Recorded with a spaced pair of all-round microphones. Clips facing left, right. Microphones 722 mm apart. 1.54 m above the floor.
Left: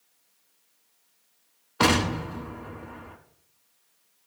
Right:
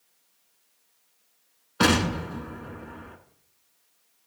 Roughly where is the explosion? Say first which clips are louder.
Right 1 dB; centre.